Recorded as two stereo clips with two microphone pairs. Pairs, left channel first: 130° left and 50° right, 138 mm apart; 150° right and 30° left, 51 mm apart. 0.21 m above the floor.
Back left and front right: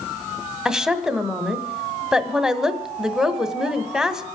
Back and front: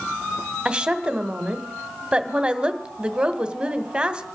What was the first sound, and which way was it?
A woman speaking, 25° left.